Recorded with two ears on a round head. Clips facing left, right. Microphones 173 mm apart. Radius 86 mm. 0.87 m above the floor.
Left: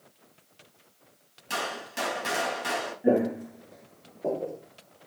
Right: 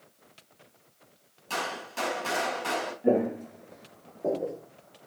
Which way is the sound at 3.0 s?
5° left (ahead or behind).